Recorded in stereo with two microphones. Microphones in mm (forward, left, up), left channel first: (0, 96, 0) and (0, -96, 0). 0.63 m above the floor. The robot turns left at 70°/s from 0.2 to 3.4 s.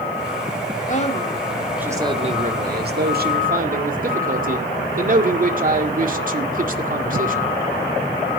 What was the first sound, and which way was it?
A man speaking, 55° left.